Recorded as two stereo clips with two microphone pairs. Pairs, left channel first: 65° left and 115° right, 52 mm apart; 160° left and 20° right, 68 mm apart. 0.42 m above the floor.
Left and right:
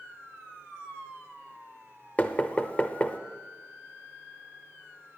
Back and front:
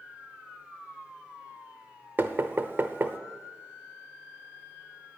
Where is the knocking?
20° left, 0.8 m.